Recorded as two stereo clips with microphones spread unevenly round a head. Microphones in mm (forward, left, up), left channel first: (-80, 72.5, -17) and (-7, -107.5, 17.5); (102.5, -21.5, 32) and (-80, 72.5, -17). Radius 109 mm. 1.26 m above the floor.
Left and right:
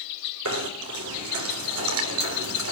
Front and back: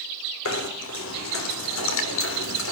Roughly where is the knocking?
Ahead right.